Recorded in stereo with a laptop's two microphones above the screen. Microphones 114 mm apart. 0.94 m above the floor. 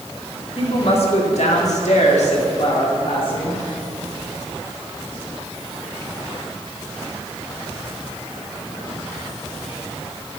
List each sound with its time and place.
0.6 s a woman speaking: 50° left (ahead or behind), 2.0 m; by 3.6 s 45° left (ahead or behind), 2.5 m